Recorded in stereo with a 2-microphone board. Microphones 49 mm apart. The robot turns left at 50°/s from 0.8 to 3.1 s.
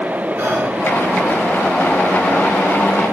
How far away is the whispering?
About 4 m.